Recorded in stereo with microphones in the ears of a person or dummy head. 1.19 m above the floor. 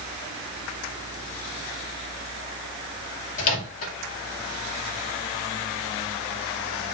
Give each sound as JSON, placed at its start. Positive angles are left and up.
{"t": 3.4, "sound": "a microwave", "side_deg": 50, "distance_m": 2.5}